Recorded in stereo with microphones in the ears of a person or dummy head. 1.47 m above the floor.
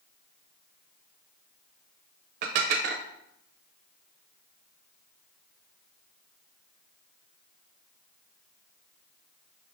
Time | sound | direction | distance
2.4 | dishes clattering | 45° right (ahead or behind) | 0.5 m